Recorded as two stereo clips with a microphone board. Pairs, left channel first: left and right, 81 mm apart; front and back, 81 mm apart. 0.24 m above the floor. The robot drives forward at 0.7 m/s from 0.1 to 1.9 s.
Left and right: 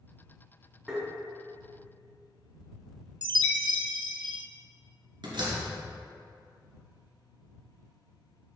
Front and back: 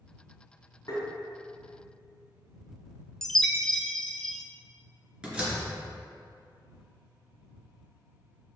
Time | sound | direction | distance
0.9 | tapping | 10° right | 2.5 m
3.2 | a chime | 85° right | 0.6 m
5.2 | a door slam | 100° right | 2.5 m